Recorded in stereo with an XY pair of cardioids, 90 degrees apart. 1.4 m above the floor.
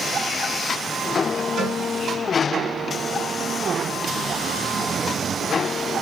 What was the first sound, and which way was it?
A cowbell, 65° right.